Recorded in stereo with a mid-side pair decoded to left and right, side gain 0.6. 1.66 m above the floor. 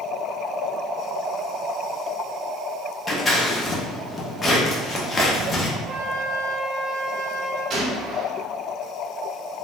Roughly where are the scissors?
Ahead left.